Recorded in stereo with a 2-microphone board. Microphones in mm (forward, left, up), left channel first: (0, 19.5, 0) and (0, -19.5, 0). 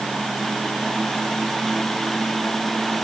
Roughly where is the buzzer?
No buzzer in this recording.